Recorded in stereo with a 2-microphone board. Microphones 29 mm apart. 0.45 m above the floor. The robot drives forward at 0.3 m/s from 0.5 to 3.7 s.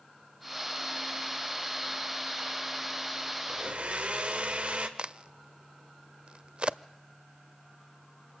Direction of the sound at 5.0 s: 40° right (ahead or behind).